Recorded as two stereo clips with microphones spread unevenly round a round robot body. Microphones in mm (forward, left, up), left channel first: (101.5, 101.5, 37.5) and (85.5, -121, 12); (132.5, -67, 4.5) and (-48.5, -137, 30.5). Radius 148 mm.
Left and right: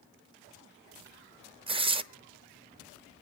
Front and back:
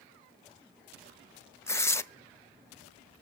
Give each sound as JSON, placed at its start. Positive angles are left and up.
{"t": 1.7, "sound": "tearing paper", "azimuth_deg": -45, "distance_m": 0.9}